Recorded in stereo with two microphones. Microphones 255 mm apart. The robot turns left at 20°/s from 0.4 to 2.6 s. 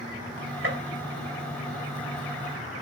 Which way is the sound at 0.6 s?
50° right (ahead or behind).